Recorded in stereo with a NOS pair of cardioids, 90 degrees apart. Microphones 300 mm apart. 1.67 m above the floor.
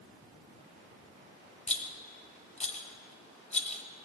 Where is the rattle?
20° left, 1.4 m.